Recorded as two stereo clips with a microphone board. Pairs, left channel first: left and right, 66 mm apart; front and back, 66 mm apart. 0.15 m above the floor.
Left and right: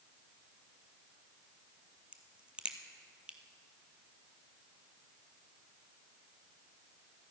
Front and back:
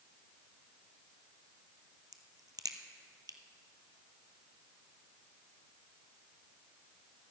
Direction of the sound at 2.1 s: 160° right.